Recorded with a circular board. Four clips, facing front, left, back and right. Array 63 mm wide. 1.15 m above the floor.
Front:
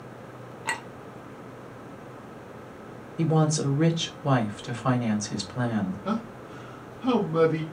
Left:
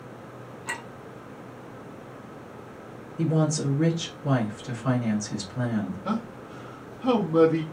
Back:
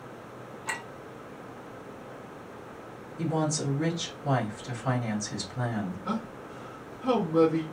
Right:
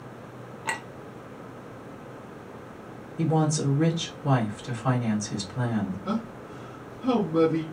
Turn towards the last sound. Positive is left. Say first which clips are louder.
# even, front 3 dB
turn(degrees=50)